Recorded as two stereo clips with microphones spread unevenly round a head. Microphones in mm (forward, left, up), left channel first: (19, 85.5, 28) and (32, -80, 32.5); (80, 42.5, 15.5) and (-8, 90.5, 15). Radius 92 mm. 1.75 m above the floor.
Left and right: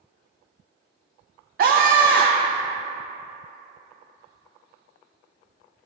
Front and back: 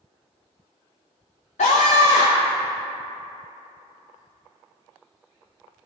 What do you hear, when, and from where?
1.6 s a scream: 50° right, 0.8 m